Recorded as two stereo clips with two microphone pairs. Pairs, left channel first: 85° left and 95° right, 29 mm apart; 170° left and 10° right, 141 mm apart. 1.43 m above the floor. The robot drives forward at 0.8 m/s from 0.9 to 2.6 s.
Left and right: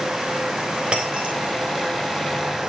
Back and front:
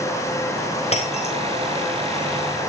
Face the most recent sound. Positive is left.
turn(degrees=-155)